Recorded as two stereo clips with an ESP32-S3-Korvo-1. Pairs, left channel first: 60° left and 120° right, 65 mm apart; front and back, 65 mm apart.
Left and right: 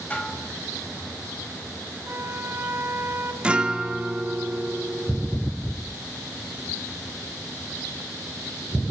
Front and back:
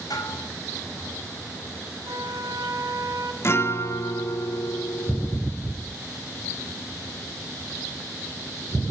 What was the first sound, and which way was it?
Dishes clattering, 10° right.